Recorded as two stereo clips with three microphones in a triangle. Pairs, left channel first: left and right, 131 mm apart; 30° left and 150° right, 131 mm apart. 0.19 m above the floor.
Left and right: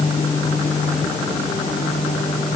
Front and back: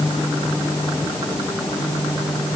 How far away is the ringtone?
No ringtone in this recording.